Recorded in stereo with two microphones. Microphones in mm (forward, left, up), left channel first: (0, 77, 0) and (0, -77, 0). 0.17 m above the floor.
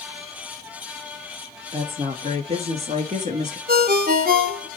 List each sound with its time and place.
1.7 s a woman speaking: 35° right (ahead or behind), 3.5 m; by 3.6 s 50° right (ahead or behind), 1.8 m
3.7 s a ringtone: 70° right (ahead or behind), 1.1 m